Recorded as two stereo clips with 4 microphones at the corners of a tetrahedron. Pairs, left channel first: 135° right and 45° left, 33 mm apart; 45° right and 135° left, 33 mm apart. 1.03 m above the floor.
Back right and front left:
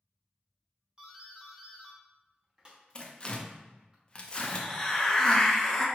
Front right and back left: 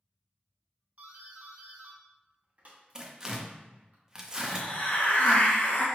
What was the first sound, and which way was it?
A doorbell, 100° left.